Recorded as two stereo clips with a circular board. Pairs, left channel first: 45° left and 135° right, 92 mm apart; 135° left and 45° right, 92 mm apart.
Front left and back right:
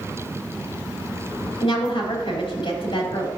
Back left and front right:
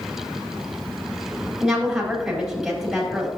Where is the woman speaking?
45° left, 4 m.